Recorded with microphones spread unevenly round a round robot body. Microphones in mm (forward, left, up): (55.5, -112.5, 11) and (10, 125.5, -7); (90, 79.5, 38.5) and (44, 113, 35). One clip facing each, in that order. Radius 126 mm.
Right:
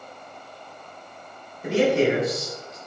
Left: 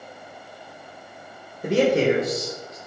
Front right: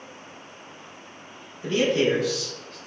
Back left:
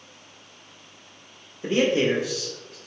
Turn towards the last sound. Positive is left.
turn(degrees=90)